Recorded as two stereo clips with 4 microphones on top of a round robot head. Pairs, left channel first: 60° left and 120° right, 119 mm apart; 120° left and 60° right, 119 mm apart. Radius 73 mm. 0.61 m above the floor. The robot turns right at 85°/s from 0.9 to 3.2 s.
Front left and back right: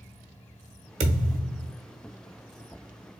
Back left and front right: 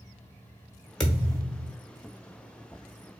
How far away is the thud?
About 1.1 m.